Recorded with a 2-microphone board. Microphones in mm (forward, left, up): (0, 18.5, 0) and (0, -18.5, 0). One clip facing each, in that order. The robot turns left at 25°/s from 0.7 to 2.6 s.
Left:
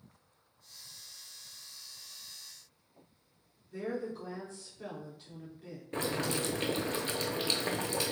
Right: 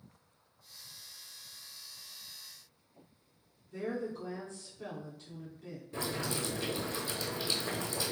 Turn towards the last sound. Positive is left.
turn(degrees=50)  # may be behind; listen again after turning